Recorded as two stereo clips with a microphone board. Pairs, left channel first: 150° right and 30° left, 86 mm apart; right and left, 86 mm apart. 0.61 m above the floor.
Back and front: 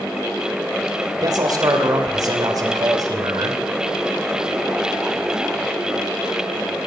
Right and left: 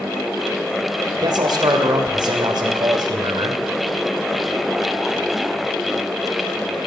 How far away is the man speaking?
About 2.5 m.